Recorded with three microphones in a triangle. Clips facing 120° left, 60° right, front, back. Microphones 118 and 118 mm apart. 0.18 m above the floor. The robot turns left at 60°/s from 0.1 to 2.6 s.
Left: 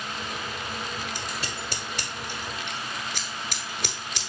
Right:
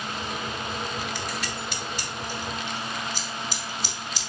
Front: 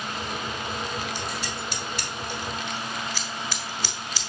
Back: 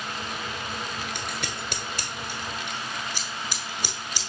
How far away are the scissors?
About 1.1 m.